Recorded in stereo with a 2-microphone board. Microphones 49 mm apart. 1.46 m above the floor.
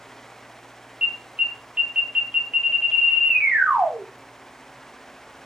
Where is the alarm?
20° right (ahead or behind), 0.7 m.